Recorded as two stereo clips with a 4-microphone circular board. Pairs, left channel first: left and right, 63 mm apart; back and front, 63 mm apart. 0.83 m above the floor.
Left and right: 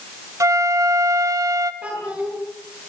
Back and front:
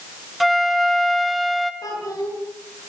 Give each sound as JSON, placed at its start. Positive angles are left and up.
{"t": 0.4, "sound": "a flute", "azimuth_deg": -90, "distance_m": 1.2}
{"t": 1.8, "sound": "a child speaking", "azimuth_deg": -160, "distance_m": 9.5}